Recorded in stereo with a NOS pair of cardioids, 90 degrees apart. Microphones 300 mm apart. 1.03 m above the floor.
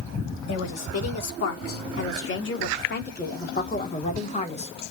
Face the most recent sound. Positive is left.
turn(degrees=20)